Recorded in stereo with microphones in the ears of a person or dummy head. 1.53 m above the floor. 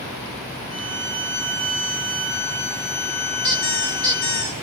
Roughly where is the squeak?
Left.